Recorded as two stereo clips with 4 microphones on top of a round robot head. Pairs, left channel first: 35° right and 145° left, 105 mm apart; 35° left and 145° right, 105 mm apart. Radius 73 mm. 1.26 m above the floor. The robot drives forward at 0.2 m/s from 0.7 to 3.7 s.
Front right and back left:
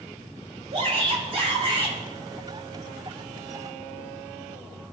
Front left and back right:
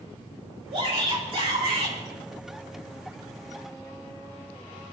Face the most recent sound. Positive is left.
turn(degrees=180)